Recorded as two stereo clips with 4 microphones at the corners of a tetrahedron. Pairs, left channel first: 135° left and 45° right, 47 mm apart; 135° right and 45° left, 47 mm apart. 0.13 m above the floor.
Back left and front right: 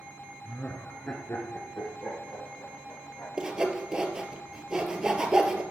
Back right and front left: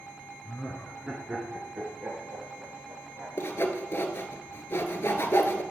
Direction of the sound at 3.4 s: 120° right.